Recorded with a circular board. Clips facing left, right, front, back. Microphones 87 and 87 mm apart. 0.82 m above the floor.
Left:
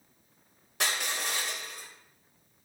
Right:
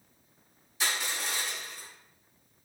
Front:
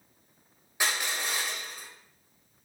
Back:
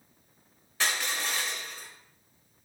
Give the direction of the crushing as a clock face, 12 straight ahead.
9 o'clock.